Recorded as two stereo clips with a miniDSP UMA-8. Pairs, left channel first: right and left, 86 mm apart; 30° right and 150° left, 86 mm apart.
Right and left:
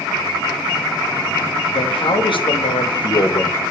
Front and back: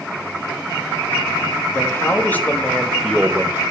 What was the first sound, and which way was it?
A man speaking, 90° right.